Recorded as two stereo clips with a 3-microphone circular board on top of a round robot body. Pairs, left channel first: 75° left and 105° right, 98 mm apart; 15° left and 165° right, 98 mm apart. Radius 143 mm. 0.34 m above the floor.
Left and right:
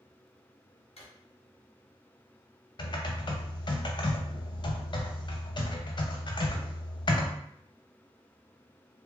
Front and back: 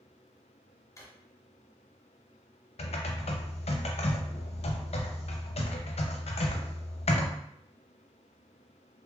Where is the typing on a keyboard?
30° left, 0.6 m.